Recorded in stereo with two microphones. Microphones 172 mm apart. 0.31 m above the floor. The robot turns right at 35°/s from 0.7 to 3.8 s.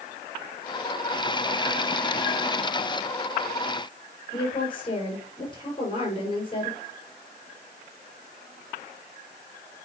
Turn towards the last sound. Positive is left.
turn(degrees=30)  # may be behind; listen again after turning